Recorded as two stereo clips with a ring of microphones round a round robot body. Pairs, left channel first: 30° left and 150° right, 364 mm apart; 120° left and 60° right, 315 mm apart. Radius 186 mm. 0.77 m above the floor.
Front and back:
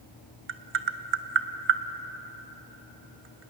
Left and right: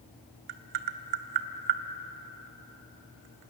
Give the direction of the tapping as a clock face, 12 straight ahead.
3 o'clock.